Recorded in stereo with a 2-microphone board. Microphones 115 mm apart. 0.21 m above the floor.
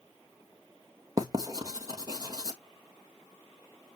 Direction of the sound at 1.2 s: 30° right (ahead or behind).